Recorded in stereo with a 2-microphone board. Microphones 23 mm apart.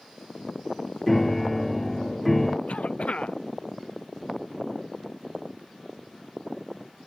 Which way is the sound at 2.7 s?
65° left (ahead or behind).